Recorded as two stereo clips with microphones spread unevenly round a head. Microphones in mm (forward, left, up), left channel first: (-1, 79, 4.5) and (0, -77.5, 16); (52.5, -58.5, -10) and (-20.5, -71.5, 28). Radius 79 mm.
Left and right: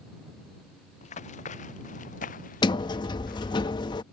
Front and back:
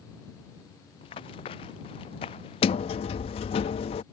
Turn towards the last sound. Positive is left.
turn(degrees=30)